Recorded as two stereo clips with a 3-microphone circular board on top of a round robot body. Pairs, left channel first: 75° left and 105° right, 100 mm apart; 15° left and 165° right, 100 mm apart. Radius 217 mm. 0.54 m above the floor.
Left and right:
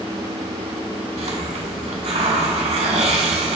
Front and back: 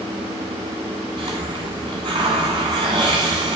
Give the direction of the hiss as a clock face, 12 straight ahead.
4 o'clock.